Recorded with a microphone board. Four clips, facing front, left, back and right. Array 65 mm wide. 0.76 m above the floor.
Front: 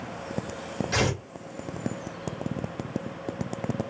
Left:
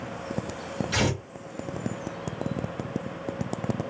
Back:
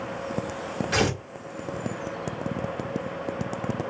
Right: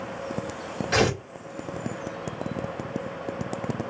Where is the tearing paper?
110° right, 1.6 m.